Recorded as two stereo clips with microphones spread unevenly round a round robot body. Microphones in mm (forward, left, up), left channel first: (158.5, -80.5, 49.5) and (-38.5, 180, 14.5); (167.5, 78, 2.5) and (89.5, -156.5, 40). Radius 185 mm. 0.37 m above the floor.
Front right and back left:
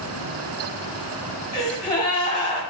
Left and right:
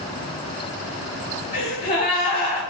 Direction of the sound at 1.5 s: 25° left.